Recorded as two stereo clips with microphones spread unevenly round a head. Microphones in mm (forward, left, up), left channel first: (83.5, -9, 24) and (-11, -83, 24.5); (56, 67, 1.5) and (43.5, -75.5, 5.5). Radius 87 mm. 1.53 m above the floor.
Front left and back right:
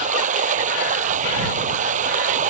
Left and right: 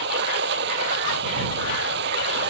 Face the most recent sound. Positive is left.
turn(degrees=-125)